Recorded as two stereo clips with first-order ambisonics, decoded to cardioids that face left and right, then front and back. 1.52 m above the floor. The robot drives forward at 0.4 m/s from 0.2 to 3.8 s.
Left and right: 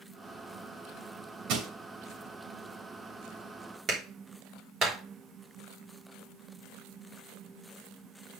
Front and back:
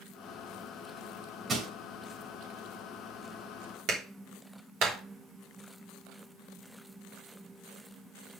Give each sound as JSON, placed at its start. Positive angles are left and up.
{"t": 1.5, "sound": "crushing", "azimuth_deg": -110, "distance_m": 2.5}
{"t": 3.9, "sound": "a clap", "azimuth_deg": -145, "distance_m": 3.0}